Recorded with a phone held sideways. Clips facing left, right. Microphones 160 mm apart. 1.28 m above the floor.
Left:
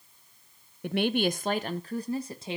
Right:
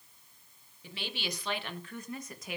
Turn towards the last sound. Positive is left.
turn(degrees=25)  # may be behind; listen again after turning